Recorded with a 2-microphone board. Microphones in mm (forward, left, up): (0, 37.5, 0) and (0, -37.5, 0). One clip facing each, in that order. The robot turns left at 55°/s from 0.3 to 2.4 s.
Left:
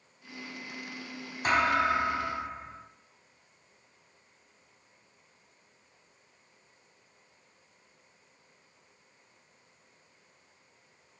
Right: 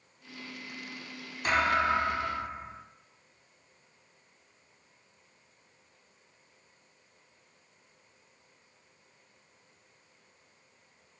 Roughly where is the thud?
Ahead left.